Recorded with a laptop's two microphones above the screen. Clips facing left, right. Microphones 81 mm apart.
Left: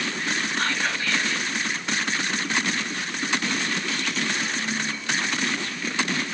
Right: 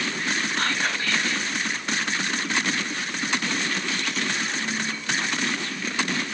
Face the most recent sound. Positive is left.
turn(degrees=-50)  # may be behind; listen again after turning